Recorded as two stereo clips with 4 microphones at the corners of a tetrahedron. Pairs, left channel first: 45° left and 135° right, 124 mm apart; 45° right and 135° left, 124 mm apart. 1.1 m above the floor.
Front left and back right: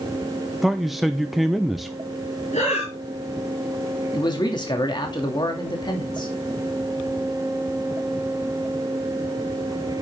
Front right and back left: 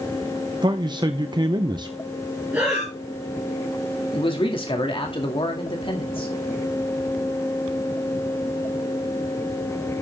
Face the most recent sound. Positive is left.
turn(degrees=-5)